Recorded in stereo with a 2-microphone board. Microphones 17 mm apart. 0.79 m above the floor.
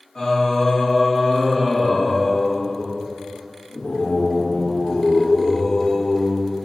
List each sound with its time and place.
0.1 s singing: 40° left (ahead or behind), 1.2 m